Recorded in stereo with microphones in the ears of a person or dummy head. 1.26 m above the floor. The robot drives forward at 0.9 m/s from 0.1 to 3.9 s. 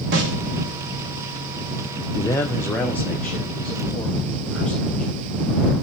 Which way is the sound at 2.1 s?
15° left (ahead or behind).